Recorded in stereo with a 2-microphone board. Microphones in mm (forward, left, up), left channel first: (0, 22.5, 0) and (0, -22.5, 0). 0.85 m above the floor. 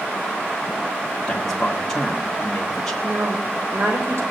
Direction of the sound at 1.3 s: 10° left (ahead or behind).